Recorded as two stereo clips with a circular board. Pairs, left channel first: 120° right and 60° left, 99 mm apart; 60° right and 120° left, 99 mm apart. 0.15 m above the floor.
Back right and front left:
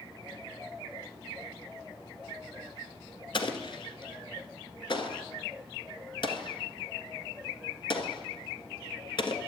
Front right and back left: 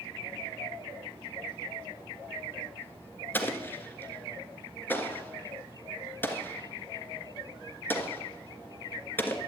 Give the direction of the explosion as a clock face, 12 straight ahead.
4 o'clock.